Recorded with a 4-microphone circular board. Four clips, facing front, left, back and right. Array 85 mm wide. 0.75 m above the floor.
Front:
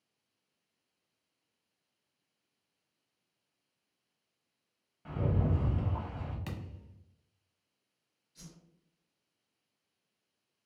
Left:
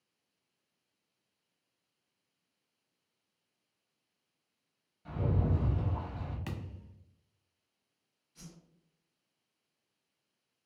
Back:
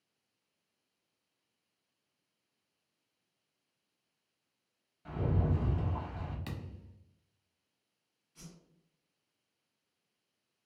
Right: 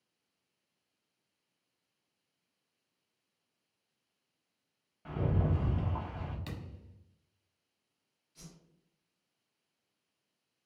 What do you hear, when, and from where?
5.0 s a rattle: 70° right, 0.7 m
6.5 s a thud: 70° left, 0.6 m
8.3 s a whoosh: 165° left, 1.2 m